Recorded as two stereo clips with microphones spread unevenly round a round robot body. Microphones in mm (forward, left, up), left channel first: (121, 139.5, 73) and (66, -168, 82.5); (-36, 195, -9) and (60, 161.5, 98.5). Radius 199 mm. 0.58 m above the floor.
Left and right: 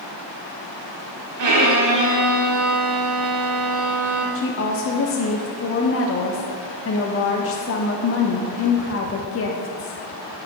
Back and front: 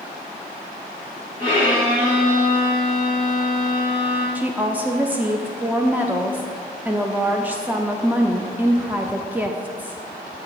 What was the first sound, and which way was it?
A violin, 70° right.